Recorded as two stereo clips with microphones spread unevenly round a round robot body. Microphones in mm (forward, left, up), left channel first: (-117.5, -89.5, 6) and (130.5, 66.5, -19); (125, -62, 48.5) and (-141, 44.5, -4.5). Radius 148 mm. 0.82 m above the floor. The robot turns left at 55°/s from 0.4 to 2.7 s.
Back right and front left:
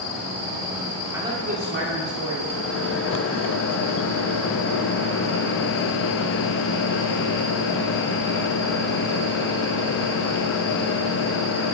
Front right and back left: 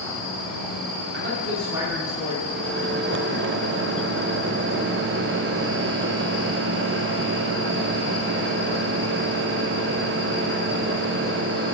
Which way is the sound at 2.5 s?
175° right.